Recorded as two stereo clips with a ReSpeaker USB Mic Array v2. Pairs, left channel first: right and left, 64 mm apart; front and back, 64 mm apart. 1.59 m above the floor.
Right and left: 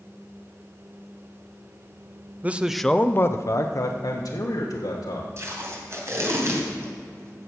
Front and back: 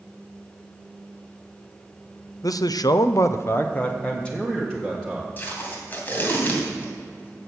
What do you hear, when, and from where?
2.4 s a man speaking: 25° left, 0.6 m; by 5.3 s 80° right, 1.8 m
5.4 s tape being pulled: 55° left, 2.5 m